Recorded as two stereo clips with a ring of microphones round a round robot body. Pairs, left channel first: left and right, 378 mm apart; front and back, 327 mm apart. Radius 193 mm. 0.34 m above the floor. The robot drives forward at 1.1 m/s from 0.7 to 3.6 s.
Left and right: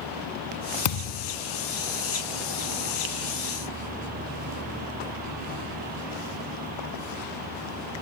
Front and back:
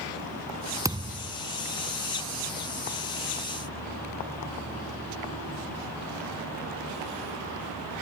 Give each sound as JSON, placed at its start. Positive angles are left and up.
{"t": 0.8, "sound": "a thud", "azimuth_deg": 100}